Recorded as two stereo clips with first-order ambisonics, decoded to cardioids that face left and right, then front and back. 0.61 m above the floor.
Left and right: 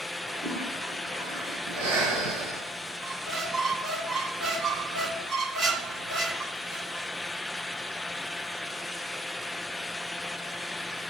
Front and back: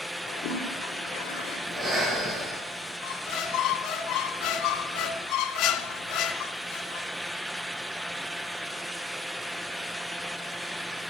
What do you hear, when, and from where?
0.3 s a toilet flushing: 15° right, 5.5 m
1.7 s breathing: 95° right, 8 m
3.0 s a squeak: 25° right, 1.4 m